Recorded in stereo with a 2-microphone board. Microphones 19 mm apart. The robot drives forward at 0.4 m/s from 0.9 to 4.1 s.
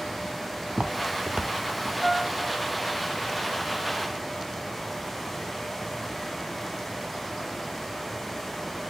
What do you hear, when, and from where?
0.7 s footsteps: 80° right, 1.4 m
2.0 s a piano: 40° right (ahead or behind), 7 m; by 2.5 s 45° right (ahead or behind), 7 m